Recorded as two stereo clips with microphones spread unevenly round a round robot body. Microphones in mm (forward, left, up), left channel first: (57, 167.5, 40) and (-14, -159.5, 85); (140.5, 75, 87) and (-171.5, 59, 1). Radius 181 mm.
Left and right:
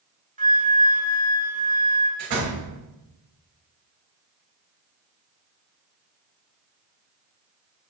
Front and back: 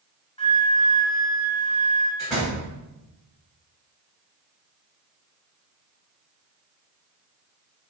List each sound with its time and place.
0.4 s a flute: 50° right, 0.9 m
2.2 s a door slam: 85° right, 3.5 m